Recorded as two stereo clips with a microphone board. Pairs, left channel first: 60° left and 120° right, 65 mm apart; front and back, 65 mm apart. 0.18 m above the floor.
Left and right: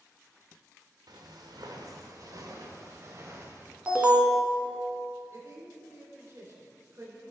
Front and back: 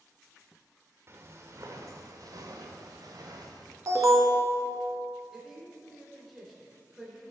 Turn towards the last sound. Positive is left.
turn(degrees=-90)